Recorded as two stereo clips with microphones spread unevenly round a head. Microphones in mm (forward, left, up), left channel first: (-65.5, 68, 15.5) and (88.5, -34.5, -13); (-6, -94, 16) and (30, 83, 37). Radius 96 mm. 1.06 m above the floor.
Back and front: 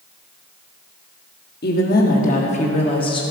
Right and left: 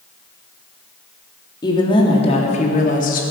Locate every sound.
1.6 s a woman speaking: 170° right, 1.9 m; by 3.2 s 145° right, 2.0 m